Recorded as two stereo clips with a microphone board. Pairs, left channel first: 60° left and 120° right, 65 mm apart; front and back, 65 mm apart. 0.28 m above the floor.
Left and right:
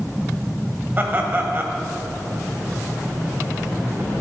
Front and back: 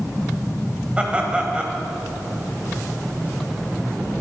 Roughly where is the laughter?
Behind right.